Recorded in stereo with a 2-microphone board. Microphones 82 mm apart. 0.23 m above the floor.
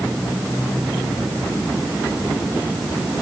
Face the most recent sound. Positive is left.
No sound to turn to.